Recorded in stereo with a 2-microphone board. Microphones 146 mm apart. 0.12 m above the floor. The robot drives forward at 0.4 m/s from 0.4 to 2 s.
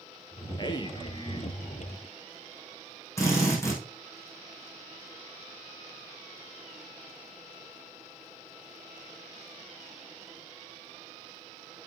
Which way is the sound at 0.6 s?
35° left (ahead or behind).